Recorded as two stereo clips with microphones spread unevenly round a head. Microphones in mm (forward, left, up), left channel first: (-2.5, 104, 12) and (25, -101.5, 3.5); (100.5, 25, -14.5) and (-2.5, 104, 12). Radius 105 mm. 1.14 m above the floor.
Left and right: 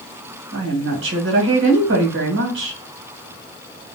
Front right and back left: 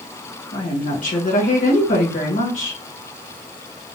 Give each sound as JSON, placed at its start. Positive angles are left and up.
{"t": 0.5, "sound": "a woman speaking", "azimuth_deg": -60, "distance_m": 2.0}